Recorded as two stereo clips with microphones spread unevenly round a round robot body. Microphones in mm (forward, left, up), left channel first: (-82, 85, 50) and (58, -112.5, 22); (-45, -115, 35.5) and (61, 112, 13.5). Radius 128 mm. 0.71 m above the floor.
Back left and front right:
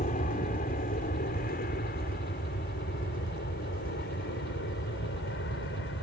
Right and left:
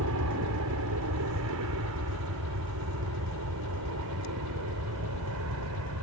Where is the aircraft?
70° left; by 6.0 s 80° left.